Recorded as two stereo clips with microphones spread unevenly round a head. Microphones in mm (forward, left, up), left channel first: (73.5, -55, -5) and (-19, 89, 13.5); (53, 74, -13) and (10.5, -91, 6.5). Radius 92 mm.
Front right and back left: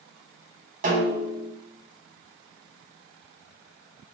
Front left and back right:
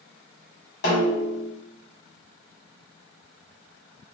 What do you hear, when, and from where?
0.8 s a snare drum: 95° left, 1.0 m